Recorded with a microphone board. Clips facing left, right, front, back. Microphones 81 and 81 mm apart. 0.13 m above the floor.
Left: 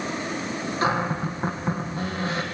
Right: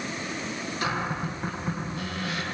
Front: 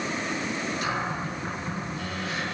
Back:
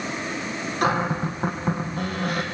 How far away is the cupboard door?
About 4 m.